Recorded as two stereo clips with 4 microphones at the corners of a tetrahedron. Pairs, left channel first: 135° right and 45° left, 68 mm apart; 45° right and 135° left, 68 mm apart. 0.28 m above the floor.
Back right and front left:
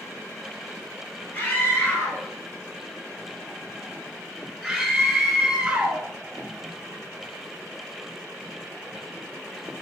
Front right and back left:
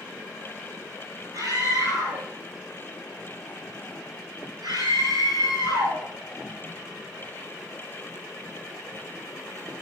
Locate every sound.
1.3 s a scream: 165° left, 7.5 m; by 6.0 s 125° left, 6.5 m